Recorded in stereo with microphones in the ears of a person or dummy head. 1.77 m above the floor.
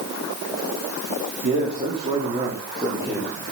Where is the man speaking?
45° right (ahead or behind), 4.5 m; by 3.4 s 15° right (ahead or behind), 5.5 m.